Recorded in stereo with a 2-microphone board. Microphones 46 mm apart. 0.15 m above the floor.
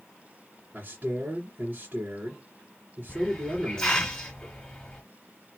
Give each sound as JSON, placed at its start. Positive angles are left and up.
{"t": 0.7, "sound": "a man speaking", "side_deg": -35, "distance_m": 2.5}
{"t": 3.1, "sound": "a hiss", "side_deg": 15, "distance_m": 1.8}